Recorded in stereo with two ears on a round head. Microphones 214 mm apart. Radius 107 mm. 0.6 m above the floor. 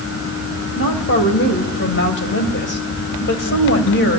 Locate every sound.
0.8 s a woman speaking: 50° left (ahead or behind), 3 m